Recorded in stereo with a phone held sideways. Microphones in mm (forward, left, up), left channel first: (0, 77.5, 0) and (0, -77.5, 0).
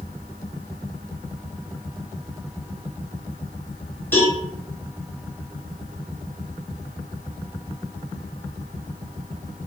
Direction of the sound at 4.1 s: 15° left (ahead or behind).